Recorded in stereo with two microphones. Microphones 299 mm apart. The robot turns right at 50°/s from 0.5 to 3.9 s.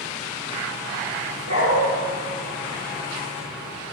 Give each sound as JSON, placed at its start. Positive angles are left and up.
{"t": 1.5, "sound": "a dog barking", "side_deg": -70, "distance_m": 7.5}